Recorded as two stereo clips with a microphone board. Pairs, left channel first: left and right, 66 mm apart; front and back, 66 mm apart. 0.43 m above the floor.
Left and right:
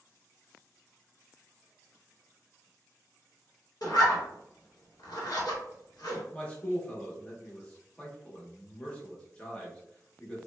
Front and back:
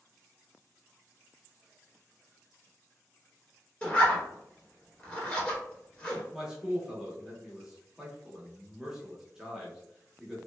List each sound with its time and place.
3.8 s a zipper: 70° left, 1.0 m
6.3 s a man speaking: 110° left, 0.7 m